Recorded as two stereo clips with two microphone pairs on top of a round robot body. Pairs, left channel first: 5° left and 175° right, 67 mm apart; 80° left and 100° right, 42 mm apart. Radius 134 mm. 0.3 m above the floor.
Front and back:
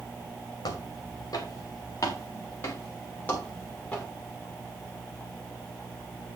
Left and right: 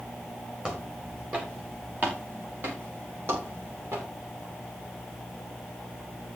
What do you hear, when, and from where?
0.6 s footsteps: 25° right, 4.5 m; by 4.1 s 75° right, 5 m